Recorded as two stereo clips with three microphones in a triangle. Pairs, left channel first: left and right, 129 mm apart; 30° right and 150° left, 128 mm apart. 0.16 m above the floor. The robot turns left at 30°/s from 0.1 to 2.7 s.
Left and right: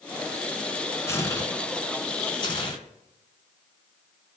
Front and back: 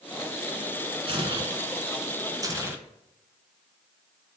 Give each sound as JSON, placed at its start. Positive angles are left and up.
{"t": 1.1, "sound": "tearing paper", "azimuth_deg": 150, "distance_m": 1.6}